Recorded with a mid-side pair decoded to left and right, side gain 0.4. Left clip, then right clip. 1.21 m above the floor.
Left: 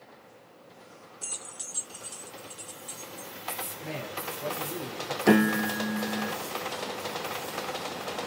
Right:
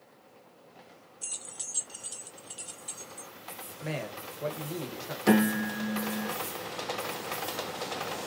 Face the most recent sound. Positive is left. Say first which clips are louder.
# left 3 dB
turn(degrees=20)